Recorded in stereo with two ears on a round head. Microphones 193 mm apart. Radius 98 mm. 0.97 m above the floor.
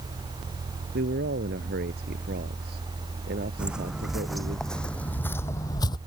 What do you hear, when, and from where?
0.9 s a man speaking: 45° right (ahead or behind); by 4.6 s 40° right (ahead or behind)
3.6 s footsteps: 5° right (ahead or behind); by 6.0 s 20° left (ahead or behind)